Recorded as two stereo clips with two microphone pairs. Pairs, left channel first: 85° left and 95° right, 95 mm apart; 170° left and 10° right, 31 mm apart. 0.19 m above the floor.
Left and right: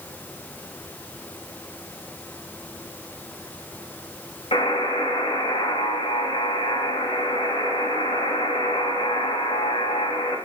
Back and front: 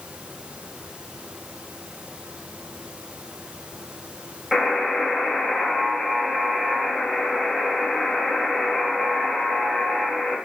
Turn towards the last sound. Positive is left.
turn(degrees=80)